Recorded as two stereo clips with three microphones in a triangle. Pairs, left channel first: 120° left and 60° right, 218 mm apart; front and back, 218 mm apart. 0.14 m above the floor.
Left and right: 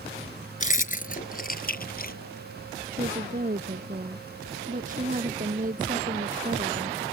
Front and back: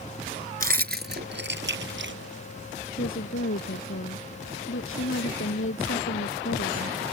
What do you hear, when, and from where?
0.6 s keys jangling: 155° left; by 2.2 s 160° left
2.9 s a woman speaking: 10° right